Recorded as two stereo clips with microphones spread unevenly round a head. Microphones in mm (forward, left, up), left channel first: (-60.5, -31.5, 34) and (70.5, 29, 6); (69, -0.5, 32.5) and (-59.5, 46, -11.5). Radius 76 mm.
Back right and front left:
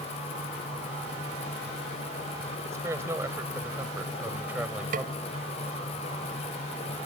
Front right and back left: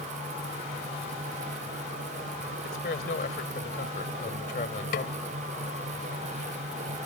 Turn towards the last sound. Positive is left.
turn(degrees=-10)